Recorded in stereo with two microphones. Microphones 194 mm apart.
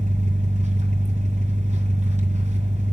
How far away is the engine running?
About 2.5 m.